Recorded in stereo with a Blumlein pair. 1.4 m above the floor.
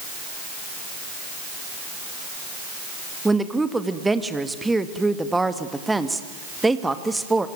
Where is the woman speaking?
5° right, 1.8 m.